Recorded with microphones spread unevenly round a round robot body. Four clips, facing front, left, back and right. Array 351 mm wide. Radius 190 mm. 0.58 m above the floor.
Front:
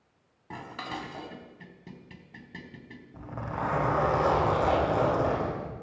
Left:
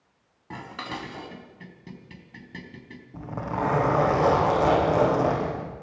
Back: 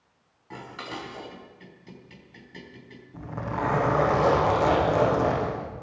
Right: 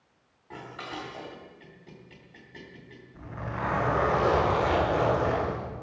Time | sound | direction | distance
0.5 | dishes clattering | 65° left | 3.5 m
3.1 | a zipper | 105° left | 9 m